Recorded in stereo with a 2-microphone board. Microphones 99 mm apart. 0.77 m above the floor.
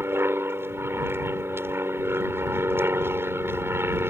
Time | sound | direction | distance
0.0 | an aircraft | 25° right (ahead or behind) | ?